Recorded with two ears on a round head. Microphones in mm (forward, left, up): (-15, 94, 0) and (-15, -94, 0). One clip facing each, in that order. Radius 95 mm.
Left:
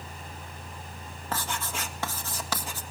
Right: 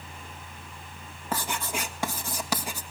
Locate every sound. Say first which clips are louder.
1.3 s writing: right 2 dB; 10° right (ahead or behind), 1.7 m